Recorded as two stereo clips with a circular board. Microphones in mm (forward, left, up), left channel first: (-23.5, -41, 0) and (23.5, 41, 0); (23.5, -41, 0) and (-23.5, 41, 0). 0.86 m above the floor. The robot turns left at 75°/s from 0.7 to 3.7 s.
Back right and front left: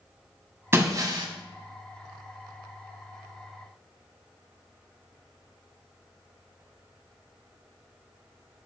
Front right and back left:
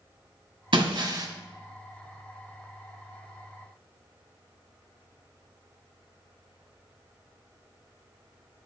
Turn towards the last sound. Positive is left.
turn(degrees=-105)